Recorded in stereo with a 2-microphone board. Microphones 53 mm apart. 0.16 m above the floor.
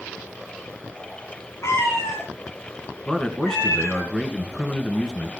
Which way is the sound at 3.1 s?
10° left (ahead or behind).